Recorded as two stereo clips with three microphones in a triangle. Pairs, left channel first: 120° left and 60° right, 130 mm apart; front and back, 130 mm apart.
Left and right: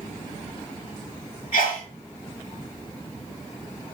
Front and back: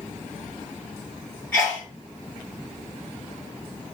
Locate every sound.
1.5 s a sneeze: 80° left, 1.6 m